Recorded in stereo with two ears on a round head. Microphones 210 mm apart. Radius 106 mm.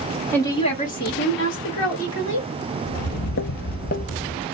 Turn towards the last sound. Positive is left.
turn(degrees=25)  # may be behind; listen again after turning